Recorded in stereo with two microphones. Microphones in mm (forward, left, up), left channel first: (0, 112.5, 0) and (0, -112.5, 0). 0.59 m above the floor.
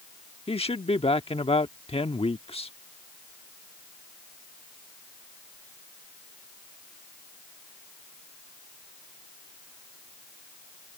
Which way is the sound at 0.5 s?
25° left (ahead or behind).